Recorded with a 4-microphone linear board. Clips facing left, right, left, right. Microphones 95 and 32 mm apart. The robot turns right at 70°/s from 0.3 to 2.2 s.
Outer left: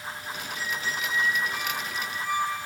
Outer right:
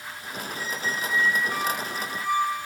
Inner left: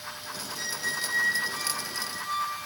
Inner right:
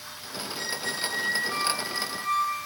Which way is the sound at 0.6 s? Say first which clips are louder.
Outer right 2 dB, even; 165° right.